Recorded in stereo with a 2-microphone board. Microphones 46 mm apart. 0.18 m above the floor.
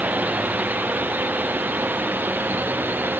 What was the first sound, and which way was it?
A drone, 35° right (ahead or behind).